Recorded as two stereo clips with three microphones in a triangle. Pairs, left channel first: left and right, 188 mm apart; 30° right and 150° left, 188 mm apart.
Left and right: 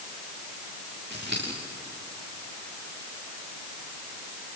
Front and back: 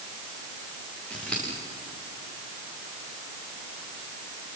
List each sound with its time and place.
1.1 s scissors: 115° right, 10 m